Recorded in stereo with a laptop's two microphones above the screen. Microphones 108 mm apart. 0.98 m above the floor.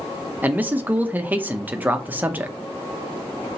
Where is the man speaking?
15° right (ahead or behind), 0.8 m.